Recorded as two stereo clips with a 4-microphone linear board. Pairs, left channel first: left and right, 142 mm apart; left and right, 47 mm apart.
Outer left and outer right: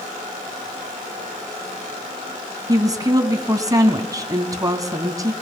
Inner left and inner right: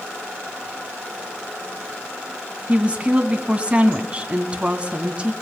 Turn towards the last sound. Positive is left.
turn(degrees=-25)  # may be behind; listen again after turning